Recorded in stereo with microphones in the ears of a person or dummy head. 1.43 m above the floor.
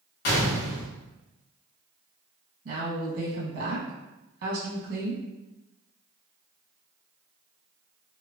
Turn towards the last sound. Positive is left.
turn(degrees=-60)  # may be behind; listen again after turning